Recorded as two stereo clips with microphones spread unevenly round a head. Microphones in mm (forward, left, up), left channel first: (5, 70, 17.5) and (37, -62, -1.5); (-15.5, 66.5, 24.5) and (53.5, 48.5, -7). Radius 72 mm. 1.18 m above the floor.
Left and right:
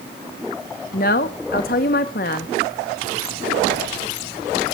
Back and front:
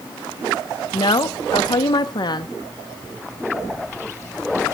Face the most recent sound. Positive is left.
turn(degrees=130)